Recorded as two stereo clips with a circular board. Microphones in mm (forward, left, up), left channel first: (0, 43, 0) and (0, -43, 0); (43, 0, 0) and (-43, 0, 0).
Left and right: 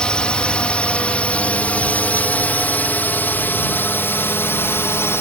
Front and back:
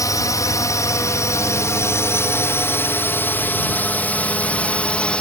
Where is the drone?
15° left; by 5.2 s 65° left.